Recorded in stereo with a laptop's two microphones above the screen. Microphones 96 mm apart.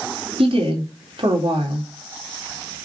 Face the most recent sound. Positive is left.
turn(degrees=-70)  # may be behind; listen again after turning